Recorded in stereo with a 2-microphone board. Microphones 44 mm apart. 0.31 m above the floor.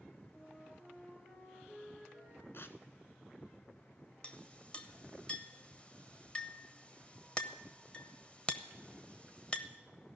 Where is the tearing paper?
60° left (ahead or behind), 0.9 m.